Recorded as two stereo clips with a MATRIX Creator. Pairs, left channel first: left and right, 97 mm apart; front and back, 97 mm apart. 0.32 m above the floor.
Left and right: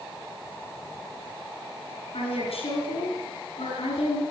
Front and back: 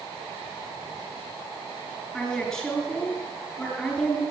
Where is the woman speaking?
85° left, 4.5 m.